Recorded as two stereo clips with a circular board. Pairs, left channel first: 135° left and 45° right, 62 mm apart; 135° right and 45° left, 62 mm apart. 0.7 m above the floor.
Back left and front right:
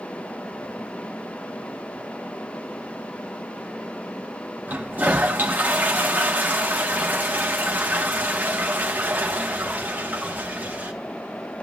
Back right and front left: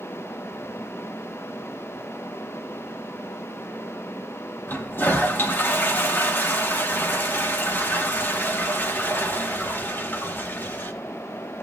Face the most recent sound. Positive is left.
turn(degrees=-95)